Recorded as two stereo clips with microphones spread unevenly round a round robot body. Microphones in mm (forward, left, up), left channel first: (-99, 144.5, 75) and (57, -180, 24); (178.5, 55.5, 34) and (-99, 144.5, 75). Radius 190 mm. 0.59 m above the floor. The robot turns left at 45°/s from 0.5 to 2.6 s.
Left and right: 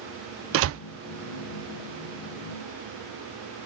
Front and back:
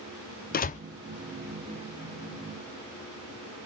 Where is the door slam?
50° right, 0.6 m; by 0.8 s 60° right, 0.6 m.